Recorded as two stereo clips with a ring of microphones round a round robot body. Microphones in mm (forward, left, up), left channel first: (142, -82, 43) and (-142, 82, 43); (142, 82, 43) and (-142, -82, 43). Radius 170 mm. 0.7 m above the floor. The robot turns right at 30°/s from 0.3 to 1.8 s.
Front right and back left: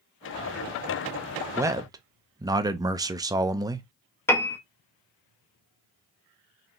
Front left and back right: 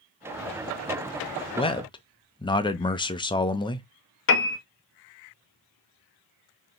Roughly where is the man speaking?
Left.